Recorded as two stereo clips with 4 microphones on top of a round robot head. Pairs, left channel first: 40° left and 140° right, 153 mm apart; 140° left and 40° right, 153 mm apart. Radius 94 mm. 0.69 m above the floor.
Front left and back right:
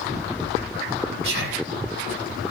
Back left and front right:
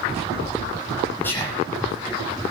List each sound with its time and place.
1.2 s whispering: 140° right, 6.5 m